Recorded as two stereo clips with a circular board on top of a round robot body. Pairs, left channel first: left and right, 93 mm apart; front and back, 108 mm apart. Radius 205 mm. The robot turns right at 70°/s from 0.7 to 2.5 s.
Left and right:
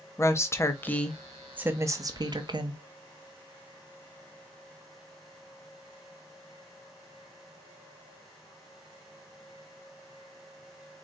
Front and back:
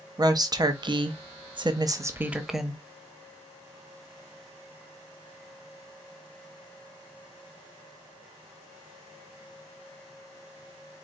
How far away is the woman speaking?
About 0.9 m.